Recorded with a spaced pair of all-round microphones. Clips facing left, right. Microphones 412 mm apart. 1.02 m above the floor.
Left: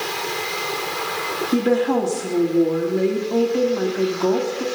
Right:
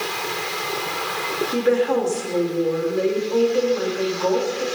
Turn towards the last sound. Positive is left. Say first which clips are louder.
# left 1 dB
turn(degrees=55)  # may be behind; listen again after turning